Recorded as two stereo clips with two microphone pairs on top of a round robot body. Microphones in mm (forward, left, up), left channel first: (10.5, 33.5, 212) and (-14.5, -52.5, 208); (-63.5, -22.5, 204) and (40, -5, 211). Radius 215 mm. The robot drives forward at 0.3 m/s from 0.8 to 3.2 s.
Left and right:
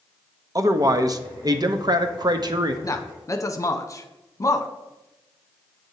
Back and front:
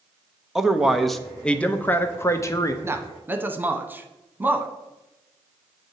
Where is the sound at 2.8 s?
65° left, 1.1 m; by 4.7 s 75° left, 1.1 m.